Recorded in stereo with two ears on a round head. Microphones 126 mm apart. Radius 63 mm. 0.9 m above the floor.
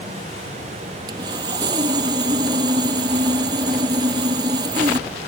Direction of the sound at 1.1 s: 30° right (ahead or behind).